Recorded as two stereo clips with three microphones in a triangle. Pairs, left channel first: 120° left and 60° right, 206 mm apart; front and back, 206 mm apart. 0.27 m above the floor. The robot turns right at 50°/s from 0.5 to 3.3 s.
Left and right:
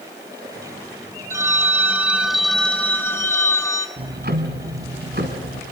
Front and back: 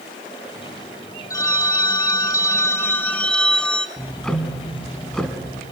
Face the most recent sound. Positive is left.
turn(degrees=-85)